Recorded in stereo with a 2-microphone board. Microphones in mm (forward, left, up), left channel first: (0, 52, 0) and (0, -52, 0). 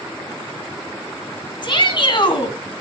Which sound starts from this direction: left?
A shout, at 1.6 s.